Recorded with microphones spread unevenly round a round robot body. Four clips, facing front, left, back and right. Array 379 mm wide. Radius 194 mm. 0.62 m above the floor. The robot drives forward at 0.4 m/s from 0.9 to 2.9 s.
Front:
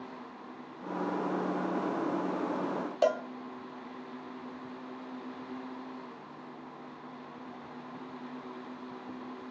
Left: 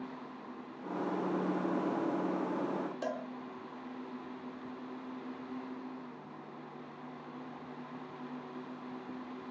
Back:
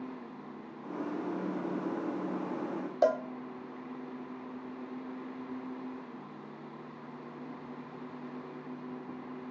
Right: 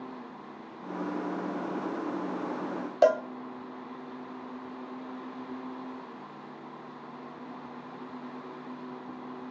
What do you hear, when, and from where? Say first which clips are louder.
3.0 s a cowbell: right 16 dB, back 1 dB; 80° right, 1.4 m